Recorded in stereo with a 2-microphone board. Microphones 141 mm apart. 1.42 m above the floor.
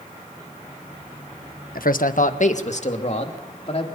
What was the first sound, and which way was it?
A man speaking, 85° left.